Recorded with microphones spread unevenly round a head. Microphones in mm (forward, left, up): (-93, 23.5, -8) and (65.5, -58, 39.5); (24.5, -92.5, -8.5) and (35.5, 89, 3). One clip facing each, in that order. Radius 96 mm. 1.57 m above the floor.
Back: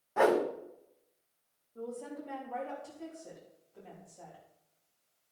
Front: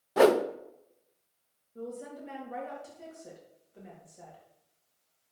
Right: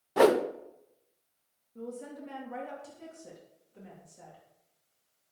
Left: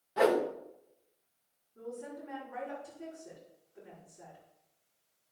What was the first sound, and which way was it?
A whoosh, 70° right.